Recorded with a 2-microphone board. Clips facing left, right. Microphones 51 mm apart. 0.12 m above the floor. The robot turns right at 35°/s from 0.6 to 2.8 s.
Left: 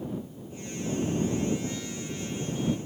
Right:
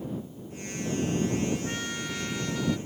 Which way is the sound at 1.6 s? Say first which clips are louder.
Right 2 dB; 130° right.